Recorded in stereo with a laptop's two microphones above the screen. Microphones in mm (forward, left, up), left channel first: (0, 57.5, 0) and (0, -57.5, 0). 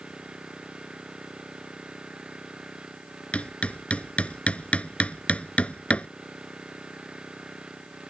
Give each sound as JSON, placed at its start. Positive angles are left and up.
{"t": 0.0, "sound": "an engine running", "side_deg": -5}
{"t": 3.3, "sound": "hammering", "side_deg": 10}